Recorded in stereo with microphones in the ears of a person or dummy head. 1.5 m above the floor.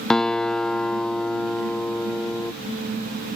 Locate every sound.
0.1 s a guitar: 5° left (ahead or behind)